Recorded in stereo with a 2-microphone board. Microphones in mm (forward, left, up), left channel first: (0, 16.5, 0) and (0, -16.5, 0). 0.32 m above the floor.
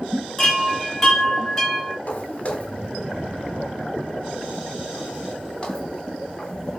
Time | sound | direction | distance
0.4 | a chime | 10° left (ahead or behind) | 7 m
2.1 | footsteps | 40° left (ahead or behind) | 4 m